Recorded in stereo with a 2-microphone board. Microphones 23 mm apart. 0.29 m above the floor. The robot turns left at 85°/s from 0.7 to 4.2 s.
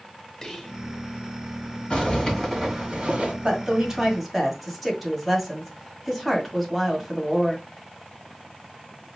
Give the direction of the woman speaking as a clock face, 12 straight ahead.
4 o'clock.